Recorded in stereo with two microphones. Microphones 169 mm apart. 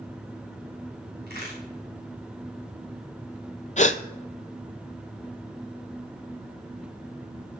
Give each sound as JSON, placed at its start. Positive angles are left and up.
{"t": 1.3, "sound": "a crack", "side_deg": -70, "distance_m": 6.0}
{"t": 3.8, "sound": "a gasp", "side_deg": 45, "distance_m": 0.5}